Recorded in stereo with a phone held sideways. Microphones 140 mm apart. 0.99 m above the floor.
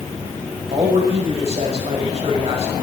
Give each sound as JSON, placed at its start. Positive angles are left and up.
{"t": 0.7, "sound": "a man speaking", "side_deg": -45, "distance_m": 4.5}